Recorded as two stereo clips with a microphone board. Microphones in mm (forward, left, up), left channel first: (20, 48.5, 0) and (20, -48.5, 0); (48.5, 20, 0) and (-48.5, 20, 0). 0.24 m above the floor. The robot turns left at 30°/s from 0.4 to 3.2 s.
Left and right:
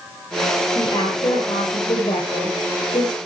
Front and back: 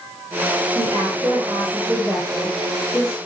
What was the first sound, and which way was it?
A woman speaking, 125° left.